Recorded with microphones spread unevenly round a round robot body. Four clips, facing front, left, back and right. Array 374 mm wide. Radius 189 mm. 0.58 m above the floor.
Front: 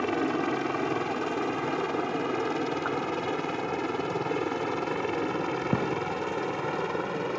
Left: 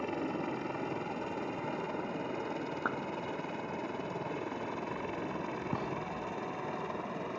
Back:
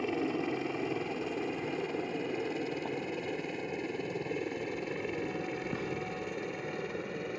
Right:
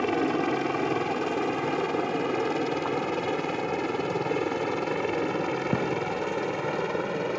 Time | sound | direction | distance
0.0 | a helicopter | 65° right | ?
2.9 | a clap | 115° left | ?
5.7 | a gunshot | 40° right | ?